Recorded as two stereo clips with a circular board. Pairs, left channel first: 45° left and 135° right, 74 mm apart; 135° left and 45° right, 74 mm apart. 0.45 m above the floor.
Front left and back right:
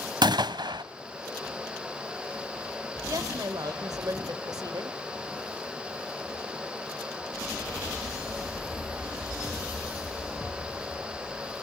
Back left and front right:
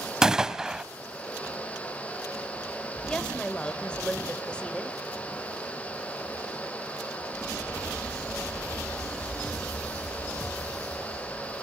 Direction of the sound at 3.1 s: 150° right.